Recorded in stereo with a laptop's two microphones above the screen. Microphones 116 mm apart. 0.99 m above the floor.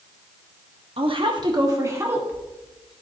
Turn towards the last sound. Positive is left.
turn(degrees=-5)  # may be behind; listen again after turning